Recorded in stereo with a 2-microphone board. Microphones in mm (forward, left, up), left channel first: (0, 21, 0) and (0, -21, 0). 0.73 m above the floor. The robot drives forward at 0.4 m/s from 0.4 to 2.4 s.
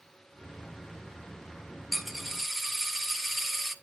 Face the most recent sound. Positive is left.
turn(degrees=0)  # may be behind; listen again after turning